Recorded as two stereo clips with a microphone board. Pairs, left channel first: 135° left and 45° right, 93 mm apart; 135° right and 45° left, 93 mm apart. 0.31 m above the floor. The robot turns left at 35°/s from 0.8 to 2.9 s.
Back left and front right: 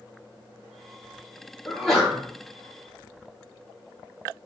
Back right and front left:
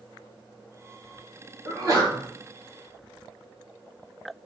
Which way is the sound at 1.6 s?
55° left.